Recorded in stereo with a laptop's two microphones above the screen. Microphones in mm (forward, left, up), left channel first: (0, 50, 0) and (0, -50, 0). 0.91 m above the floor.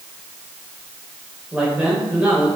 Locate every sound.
1.5 s a man speaking: 15° right (ahead or behind), 3.5 m